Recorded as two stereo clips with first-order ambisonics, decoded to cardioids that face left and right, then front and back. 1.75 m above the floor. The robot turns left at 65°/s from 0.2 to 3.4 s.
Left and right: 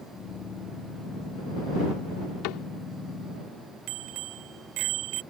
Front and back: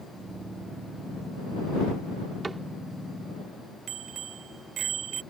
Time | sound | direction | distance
2.4 | a cupboard door | 105° left | ?
3.9 | a bicycle bell | 125° right | ?